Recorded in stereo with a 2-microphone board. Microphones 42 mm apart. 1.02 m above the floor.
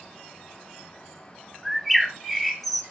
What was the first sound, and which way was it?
A bird, 5° left (ahead or behind).